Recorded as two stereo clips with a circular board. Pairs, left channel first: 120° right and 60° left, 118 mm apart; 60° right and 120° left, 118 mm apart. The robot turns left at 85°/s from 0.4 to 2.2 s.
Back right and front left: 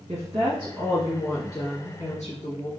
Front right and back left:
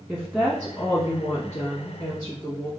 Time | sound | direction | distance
0.1 | a woman speaking | 35° left | 1.7 m